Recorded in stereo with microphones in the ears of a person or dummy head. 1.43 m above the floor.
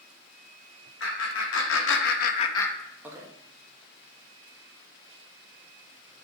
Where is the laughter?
80° left, 1.3 m; by 3.3 s 20° right (ahead or behind), 0.8 m.